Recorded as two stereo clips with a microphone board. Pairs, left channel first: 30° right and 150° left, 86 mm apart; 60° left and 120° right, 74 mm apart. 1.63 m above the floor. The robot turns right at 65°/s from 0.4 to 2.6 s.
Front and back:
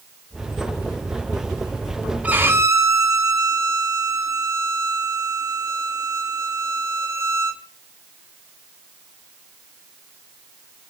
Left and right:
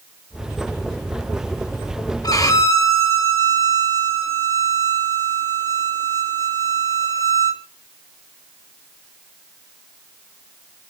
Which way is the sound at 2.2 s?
80° left.